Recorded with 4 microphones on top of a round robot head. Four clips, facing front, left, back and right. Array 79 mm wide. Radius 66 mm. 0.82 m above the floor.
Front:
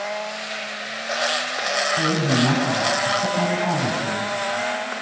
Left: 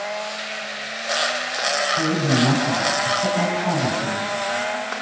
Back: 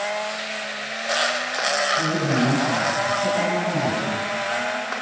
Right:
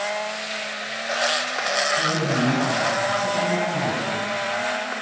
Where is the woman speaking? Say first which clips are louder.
Left 2 dB, front 1 dB; 40° left, 7.5 m.